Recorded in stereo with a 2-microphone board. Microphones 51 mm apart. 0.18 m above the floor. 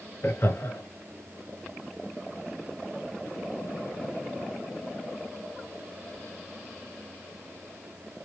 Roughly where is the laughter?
Left.